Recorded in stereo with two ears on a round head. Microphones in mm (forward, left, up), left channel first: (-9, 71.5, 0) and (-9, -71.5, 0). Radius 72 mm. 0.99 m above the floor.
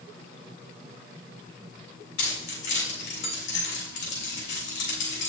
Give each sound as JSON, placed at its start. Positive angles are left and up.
{"t": 2.2, "sound": "keys jangling", "side_deg": 85, "distance_m": 3.0}